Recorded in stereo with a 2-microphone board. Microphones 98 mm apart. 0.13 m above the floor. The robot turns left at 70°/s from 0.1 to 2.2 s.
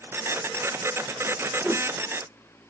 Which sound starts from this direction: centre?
A whoosh, at 1.6 s.